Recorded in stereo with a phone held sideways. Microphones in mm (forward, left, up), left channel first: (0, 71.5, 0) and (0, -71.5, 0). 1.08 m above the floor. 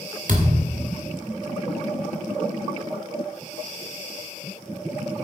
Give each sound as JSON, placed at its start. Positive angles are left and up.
{"t": 0.3, "sound": "a thud", "side_deg": -70, "distance_m": 1.7}